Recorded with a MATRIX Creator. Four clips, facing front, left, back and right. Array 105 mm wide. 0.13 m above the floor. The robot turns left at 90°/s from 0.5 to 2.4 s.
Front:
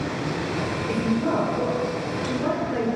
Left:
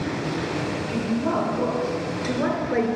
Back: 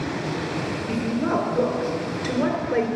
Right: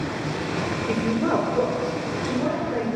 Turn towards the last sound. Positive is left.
turn(degrees=130)